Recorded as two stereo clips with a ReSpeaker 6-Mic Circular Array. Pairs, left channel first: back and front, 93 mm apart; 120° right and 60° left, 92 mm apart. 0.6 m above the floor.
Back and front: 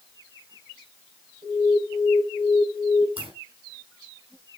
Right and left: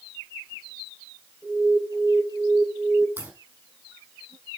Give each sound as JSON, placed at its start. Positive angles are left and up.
{"t": 1.4, "sound": "an alarm", "azimuth_deg": -20, "distance_m": 7.0}
{"t": 3.2, "sound": "a crack", "azimuth_deg": -10, "distance_m": 5.0}